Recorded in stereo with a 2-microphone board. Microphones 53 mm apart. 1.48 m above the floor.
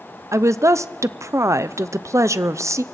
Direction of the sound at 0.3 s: 70° right (ahead or behind).